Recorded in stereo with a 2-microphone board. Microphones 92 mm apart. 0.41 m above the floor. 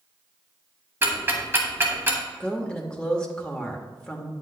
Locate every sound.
1.0 s ticking: 25° right (ahead or behind), 1.4 m
2.4 s a woman speaking: 10° left (ahead or behind), 1.0 m